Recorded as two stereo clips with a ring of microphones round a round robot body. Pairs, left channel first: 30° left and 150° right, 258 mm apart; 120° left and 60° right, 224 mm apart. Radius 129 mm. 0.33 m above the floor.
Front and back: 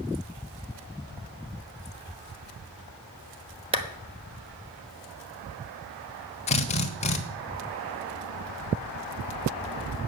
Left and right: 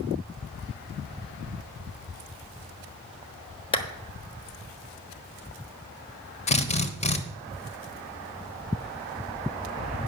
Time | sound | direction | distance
3.7 | a clap | 165° left | 1.0 m
6.5 | a drill | 80° left | 1.1 m